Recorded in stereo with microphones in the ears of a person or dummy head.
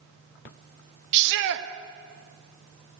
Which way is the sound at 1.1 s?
65° right (ahead or behind).